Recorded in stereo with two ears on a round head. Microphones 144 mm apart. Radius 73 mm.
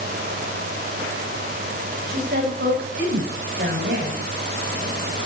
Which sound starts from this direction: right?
A woman speaking, at 2.1 s.